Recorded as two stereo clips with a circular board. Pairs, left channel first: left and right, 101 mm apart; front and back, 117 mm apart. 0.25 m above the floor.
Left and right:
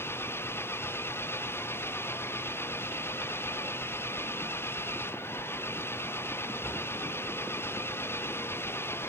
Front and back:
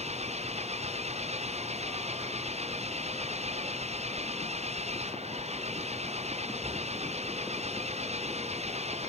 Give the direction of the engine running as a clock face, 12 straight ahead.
7 o'clock.